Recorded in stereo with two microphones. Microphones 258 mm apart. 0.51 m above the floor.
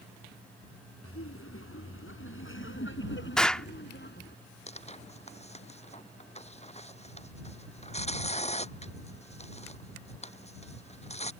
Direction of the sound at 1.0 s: 60° left (ahead or behind).